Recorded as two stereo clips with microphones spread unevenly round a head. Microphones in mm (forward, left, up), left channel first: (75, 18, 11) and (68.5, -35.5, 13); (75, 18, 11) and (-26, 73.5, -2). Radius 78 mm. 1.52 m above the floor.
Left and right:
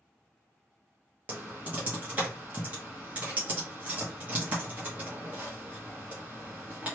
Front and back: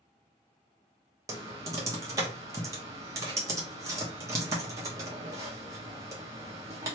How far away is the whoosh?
No whoosh in this recording.